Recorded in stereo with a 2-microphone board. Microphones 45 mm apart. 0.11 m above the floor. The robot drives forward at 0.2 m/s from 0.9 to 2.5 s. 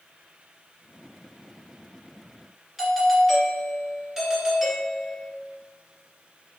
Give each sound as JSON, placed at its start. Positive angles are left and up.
{"t": 2.8, "sound": "a doorbell", "side_deg": -10, "distance_m": 1.7}